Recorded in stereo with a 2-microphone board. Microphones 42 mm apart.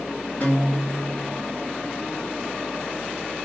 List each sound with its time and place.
0.4 s a guitar: 35° left (ahead or behind), 1.7 m